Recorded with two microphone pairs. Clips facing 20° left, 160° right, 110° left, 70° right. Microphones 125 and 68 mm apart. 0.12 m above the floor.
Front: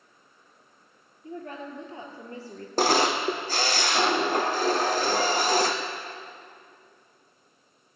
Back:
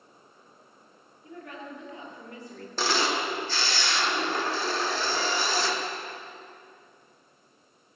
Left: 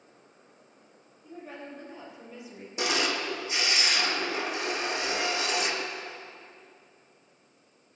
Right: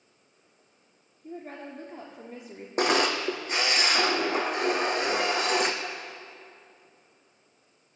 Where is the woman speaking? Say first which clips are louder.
Front 4 dB, right 2 dB; 35° right, 2.5 m.